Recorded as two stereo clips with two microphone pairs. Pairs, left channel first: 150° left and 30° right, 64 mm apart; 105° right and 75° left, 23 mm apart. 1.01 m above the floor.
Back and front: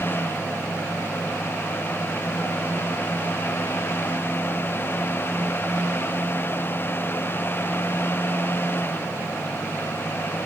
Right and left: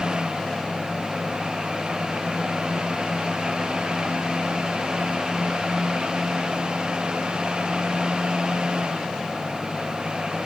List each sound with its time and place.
Only background noise.